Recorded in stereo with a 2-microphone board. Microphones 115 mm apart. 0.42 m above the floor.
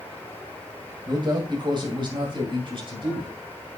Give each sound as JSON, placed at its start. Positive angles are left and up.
{"t": 1.1, "sound": "a man speaking", "side_deg": -35, "distance_m": 1.9}